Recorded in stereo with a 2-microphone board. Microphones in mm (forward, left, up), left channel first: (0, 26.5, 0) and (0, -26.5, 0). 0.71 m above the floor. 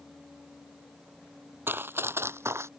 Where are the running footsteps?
45° right (ahead or behind); by 2.7 s 60° right (ahead or behind).